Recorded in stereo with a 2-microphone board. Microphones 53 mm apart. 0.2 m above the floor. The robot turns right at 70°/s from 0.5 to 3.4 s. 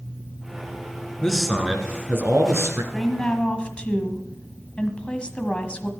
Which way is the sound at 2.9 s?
10° left (ahead or behind).